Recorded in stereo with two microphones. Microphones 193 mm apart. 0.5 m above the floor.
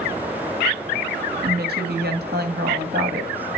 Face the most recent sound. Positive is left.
turn(degrees=-55)  # may be behind; listen again after turning